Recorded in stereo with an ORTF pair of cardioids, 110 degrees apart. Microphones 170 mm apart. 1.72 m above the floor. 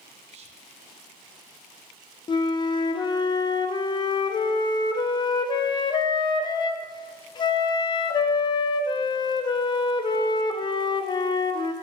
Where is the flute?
25° left, 0.6 m.